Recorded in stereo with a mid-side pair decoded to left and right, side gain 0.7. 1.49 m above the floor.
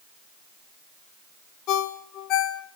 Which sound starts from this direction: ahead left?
A ringtone, at 1.7 s.